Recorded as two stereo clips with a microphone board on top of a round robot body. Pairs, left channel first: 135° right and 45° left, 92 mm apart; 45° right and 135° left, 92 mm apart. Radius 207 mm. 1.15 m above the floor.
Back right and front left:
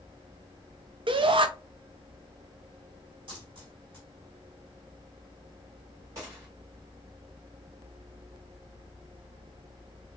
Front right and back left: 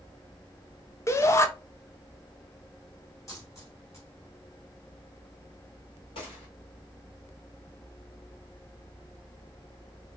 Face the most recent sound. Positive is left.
turn(degrees=-10)